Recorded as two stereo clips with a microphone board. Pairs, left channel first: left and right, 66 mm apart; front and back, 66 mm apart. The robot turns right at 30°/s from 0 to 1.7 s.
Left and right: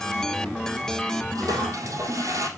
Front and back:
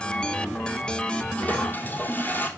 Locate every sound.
1.4 s a toilet flushing: 70° right, 3 m; by 2.5 s 60° right, 3 m